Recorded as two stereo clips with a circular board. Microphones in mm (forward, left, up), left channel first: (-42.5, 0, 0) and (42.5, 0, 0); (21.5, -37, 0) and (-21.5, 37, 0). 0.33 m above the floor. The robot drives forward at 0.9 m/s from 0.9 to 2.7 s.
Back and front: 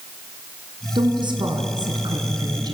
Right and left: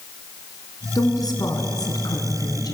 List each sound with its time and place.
0.9 s a woman speaking: 20° right, 4.5 m; by 2.8 s 30° right, 3 m